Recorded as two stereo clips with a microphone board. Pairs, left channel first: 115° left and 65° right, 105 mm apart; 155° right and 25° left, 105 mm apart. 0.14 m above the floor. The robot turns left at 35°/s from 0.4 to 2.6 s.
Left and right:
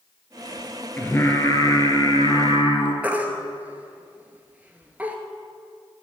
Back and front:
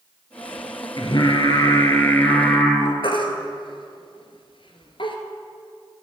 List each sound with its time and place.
1.0 s singing: straight behind, 1.3 m; by 2.9 s 120° left, 1.3 m
3.0 s a baby crying: 140° right, 1.1 m